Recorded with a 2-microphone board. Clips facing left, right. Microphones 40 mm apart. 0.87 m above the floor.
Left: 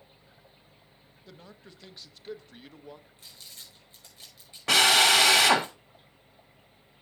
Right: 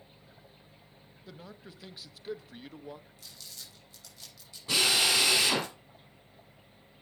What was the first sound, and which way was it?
A man speaking, 5° right (ahead or behind).